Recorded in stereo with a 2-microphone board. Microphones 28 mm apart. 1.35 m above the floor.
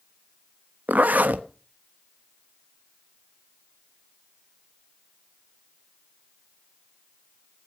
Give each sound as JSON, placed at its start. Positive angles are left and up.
{"t": 0.9, "sound": "a zipper", "side_deg": -70, "distance_m": 1.1}